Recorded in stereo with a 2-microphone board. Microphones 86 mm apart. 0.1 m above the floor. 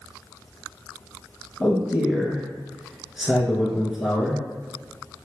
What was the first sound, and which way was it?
A man speaking, 5° right (ahead or behind).